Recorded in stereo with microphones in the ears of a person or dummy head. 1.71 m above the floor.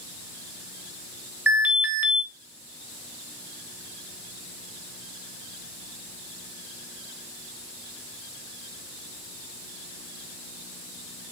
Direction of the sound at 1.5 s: 10° right (ahead or behind).